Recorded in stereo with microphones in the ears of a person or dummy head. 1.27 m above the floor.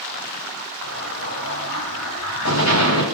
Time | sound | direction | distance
0.8 | an explosion | 75° left (ahead or behind) | 8.5 m